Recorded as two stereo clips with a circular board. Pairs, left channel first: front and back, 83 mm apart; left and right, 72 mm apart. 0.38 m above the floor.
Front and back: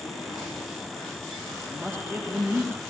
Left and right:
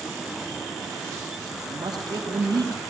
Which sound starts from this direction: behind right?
A man speaking, at 1.6 s.